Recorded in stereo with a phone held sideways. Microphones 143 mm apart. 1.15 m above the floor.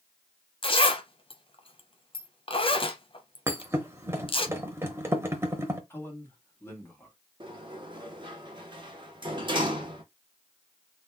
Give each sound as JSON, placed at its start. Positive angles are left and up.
{"t": 0.6, "sound": "a zipper", "side_deg": 35, "distance_m": 0.6}
{"t": 3.5, "sound": "a thud", "side_deg": -15, "distance_m": 0.9}
{"t": 5.9, "sound": "a man speaking", "side_deg": 15, "distance_m": 1.5}
{"t": 7.4, "sound": "a sliding door", "side_deg": -30, "distance_m": 1.1}